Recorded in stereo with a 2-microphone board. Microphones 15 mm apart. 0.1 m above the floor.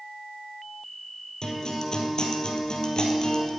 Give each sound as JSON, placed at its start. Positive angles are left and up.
{"t": 1.4, "sound": "a guitar", "side_deg": 50, "distance_m": 2.5}